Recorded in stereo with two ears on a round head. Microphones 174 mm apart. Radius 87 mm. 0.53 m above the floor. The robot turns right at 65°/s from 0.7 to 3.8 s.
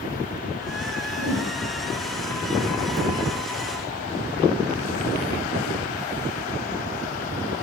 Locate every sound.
1.2 s a whoosh: 80° right, 4 m; by 1.5 s 55° right (ahead or behind), 4 m